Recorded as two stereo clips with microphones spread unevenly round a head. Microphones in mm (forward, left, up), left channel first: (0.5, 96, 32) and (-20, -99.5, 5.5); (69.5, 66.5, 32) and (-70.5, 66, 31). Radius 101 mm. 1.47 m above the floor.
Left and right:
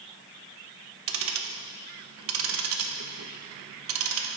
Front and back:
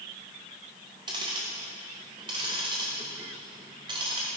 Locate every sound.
1.1 s ticking: 110° right, 0.9 m